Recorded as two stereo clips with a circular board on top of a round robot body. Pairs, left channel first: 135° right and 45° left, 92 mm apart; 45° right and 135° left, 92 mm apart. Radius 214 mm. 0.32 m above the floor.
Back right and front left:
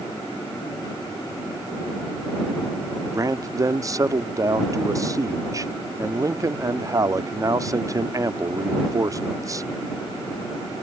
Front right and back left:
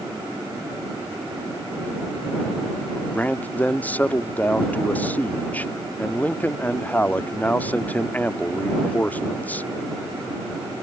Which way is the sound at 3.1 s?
20° left.